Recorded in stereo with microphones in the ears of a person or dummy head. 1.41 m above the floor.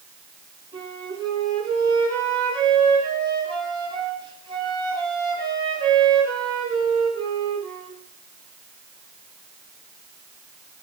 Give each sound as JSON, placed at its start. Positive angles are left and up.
{"t": 0.7, "sound": "a flute", "side_deg": -30, "distance_m": 9.5}